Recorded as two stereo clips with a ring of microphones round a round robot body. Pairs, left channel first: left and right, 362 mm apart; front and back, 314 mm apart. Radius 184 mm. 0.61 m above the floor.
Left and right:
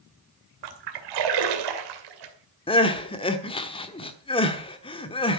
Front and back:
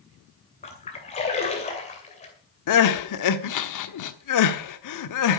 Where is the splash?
75° right, 2.5 m.